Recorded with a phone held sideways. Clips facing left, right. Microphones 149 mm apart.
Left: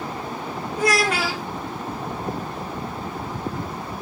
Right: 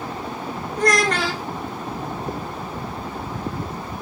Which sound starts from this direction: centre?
A child speaking, at 0.8 s.